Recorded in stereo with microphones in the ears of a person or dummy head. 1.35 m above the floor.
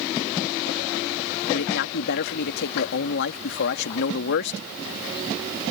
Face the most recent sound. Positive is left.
turn(degrees=65)  # may be behind; listen again after turning